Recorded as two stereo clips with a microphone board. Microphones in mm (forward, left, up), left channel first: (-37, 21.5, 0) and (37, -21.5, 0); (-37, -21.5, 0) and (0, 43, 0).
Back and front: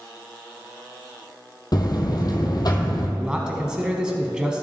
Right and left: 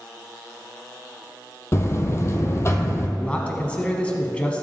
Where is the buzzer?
170° right, 1.2 m.